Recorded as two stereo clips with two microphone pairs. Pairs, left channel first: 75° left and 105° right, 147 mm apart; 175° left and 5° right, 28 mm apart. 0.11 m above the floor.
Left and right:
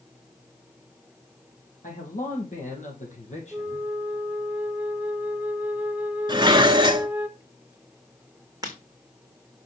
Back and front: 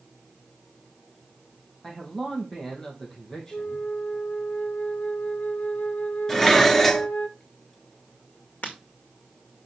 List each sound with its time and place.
1.8 s a man speaking: 100° left, 4 m; by 3.9 s 115° left, 3.5 m
3.5 s a flute: straight behind, 0.5 m
6.3 s dishes clattering: 120° right, 0.9 m
8.6 s breaking glass: 165° right, 2 m